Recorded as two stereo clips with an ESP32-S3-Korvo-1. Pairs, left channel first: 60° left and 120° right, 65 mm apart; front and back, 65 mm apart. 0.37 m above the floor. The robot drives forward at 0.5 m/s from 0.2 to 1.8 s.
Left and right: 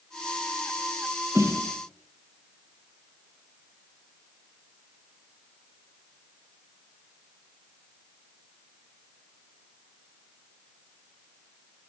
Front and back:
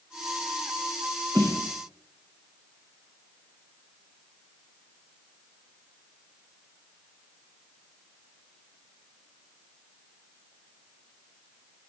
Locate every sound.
1.4 s a snare drum: 155° right, 5 m; by 1.7 s 160° right, 5 m